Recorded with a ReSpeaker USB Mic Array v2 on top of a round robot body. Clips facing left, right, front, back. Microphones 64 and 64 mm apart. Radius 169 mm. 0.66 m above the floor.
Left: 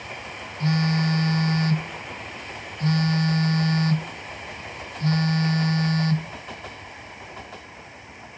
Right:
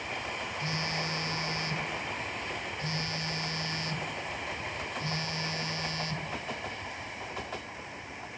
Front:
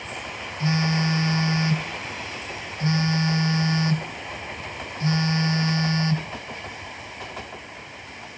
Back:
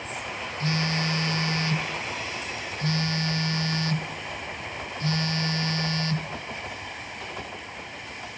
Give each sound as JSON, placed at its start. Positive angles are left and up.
{"t": 0.6, "sound": "a phone buzzing", "azimuth_deg": 65, "distance_m": 0.7}